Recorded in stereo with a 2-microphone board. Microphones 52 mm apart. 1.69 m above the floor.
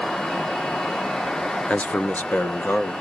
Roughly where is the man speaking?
Left.